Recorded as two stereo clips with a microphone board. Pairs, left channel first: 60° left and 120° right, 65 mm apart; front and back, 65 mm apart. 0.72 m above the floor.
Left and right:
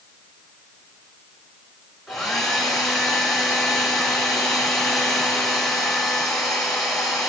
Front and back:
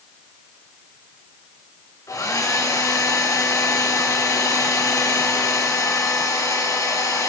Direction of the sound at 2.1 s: 20° right.